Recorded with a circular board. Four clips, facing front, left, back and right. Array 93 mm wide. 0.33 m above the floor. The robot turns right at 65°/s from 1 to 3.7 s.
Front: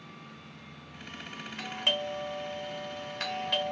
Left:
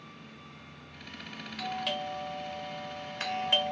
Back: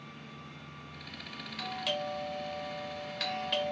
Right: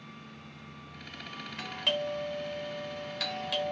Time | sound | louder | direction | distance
1.6 | a doorbell | even, front 1 dB | 40° right | 1.6 m